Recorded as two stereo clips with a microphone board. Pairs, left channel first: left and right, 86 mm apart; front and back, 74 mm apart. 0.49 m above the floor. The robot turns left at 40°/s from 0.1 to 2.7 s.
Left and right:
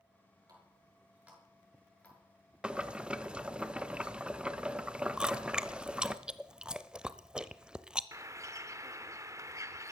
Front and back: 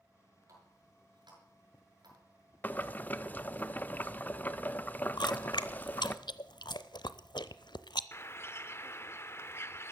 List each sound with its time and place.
0.5 s a running tap: 135° right, 6 m; by 3.6 s 135° left, 6 m
2.6 s boiling: 25° right, 0.8 m
5.2 s chewing: 10° right, 0.7 m
8.1 s a bird: 45° right, 0.8 m